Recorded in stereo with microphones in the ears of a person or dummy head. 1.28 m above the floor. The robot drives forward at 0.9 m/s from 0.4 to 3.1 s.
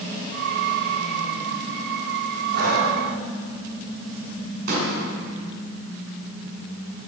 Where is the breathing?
50° right (ahead or behind), 3.5 m.